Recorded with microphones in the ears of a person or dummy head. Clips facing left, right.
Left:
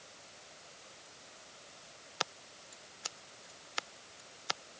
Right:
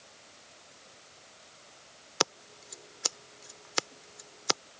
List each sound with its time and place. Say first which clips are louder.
2.2 s scissors: right 10 dB; 60° right (ahead or behind)